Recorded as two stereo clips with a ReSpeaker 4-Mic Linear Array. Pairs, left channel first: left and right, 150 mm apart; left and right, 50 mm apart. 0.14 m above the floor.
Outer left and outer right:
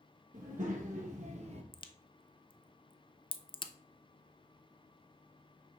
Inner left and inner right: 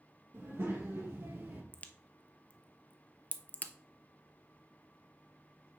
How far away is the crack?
About 0.6 m.